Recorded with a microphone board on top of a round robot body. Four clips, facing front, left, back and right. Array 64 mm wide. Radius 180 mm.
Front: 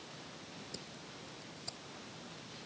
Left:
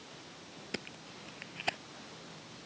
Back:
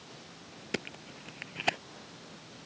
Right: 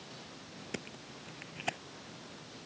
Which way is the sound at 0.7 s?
175° left.